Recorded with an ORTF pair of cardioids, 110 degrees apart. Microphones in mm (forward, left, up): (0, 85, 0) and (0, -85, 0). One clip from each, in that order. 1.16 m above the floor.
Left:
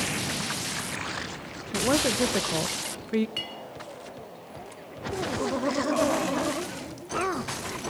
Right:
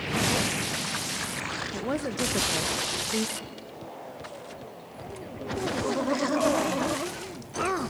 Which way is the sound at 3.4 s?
50° left.